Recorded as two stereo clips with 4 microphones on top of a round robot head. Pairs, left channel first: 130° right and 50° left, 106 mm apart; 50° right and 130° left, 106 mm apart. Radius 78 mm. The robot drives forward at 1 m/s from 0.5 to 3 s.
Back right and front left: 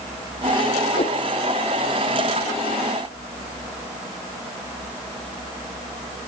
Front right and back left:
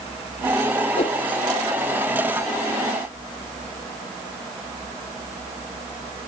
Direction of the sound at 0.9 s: 85° right.